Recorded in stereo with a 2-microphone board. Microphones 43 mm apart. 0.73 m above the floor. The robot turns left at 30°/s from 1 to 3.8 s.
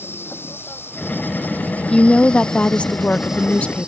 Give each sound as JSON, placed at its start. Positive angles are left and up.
{"t": 0.0, "sound": "an insect", "azimuth_deg": 60}
{"t": 1.9, "sound": "a woman speaking", "side_deg": 20}